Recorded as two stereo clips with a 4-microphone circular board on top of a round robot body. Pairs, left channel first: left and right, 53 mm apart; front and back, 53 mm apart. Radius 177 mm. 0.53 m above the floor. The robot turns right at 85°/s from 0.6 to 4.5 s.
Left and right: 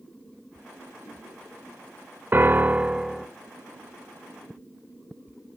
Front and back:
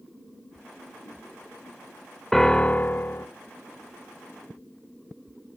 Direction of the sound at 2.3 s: 80° right.